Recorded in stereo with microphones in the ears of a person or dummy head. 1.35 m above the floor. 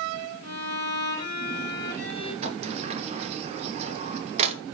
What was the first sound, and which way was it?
A violin, 75° right (ahead or behind).